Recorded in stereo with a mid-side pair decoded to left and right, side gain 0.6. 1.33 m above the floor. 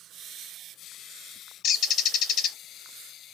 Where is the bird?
55° left, 0.7 m.